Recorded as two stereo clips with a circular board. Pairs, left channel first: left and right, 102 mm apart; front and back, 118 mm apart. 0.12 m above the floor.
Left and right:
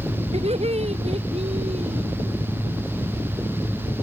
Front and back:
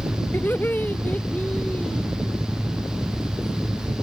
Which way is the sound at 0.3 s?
75° right.